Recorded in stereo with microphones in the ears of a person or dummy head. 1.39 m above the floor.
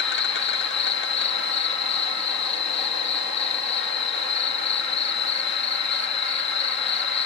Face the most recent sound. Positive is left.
turn(degrees=60)  # may be behind; listen again after turning